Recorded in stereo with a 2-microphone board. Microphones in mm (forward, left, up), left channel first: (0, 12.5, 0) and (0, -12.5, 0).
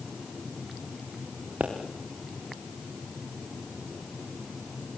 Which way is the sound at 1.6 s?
85° right.